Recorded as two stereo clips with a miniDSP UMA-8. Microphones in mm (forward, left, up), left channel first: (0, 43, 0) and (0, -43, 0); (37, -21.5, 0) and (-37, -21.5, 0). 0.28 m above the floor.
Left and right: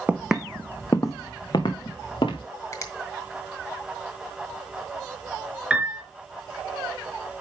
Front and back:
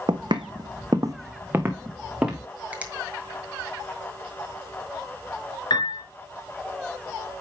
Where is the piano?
15° right, 3 m.